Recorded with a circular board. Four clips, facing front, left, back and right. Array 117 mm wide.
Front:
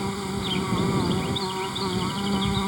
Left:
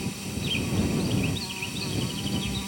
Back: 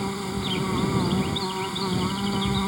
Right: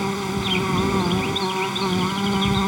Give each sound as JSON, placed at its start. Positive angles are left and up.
{"t": 0.0, "sound": "an insect", "azimuth_deg": -90}